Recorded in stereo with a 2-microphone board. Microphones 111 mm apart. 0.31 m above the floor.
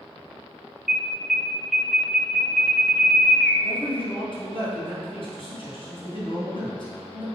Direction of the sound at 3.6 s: 50° left (ahead or behind).